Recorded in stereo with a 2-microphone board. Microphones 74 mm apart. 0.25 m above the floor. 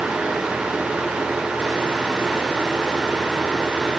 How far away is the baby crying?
No baby crying in this recording.